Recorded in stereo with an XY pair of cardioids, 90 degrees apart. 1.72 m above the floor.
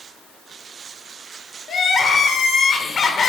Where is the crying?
55° left, 0.6 m.